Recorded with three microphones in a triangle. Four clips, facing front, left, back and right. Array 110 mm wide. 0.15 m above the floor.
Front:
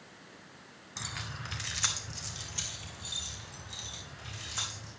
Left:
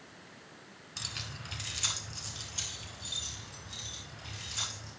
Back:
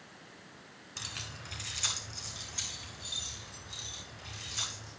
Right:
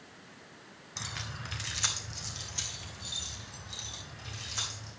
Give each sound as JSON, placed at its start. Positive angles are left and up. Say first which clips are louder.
{"t": 1.0, "sound": "keys jangling", "louder": "right 4 dB, front 5 dB", "azimuth_deg": -45, "distance_m": 0.8}